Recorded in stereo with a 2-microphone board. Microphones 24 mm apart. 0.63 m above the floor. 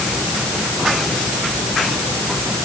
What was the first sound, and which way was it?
Only background noise.